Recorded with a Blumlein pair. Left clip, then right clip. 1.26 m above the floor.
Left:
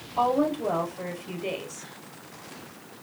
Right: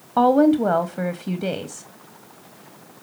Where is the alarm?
No alarm in this recording.